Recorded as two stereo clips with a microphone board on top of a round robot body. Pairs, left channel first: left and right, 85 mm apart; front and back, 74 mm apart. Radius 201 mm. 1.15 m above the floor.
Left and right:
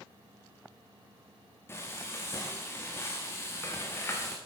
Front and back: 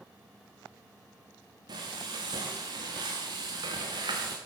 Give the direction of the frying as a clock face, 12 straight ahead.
7 o'clock.